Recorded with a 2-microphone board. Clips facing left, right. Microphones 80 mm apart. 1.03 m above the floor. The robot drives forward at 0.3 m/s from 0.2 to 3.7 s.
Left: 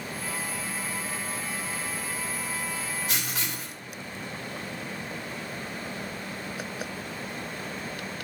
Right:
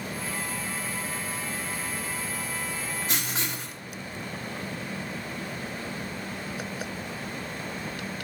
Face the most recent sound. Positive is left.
turn(degrees=-35)  # may be behind; listen again after turning